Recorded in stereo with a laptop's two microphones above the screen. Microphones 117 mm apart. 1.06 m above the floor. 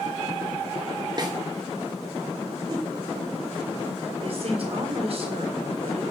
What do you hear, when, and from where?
1.2 s a snare drum: 35° right (ahead or behind), 2.5 m
2.7 s a whoosh: 35° right (ahead or behind), 4.5 m
4.2 s a woman speaking: 55° right (ahead or behind), 3.5 m